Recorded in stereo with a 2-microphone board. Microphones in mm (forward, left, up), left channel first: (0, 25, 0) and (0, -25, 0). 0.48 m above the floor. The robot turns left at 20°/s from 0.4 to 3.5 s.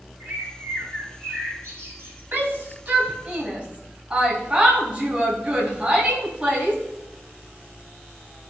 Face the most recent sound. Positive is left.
turn(degrees=-25)  # may be behind; listen again after turning